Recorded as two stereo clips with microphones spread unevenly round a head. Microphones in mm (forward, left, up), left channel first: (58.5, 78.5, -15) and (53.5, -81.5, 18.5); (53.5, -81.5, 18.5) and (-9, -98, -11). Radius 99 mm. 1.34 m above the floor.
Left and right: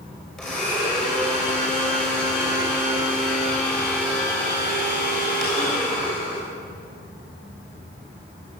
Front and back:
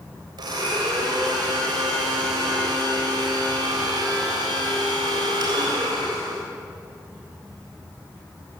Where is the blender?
175° left, 6 m.